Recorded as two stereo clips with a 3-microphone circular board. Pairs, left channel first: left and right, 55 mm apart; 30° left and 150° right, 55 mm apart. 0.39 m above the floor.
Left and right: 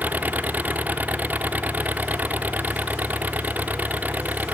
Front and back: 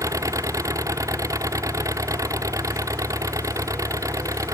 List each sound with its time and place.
0.0 s an engine running: 150° right